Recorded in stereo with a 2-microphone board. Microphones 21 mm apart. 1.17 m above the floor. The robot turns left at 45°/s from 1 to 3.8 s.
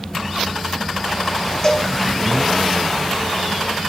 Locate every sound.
1.6 s a cowbell: 30° left (ahead or behind), 1.5 m; by 1.9 s 20° left (ahead or behind), 1.5 m